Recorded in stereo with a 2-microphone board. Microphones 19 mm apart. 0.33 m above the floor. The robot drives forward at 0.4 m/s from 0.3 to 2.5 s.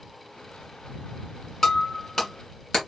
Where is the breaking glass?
30° left (ahead or behind), 1.9 m; by 2.8 s 25° left (ahead or behind), 2 m.